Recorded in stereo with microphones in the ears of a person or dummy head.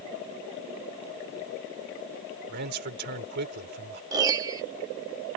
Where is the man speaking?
55° right (ahead or behind).